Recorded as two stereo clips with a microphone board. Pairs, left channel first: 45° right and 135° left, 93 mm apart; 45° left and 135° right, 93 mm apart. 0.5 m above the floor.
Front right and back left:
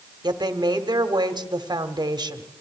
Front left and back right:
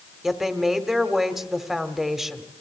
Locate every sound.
0.2 s a woman speaking: 140° left, 1.4 m